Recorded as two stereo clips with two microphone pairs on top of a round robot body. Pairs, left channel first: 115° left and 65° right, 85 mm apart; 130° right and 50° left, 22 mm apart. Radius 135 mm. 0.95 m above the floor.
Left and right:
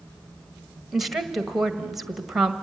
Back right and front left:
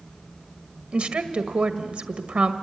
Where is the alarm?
No alarm in this recording.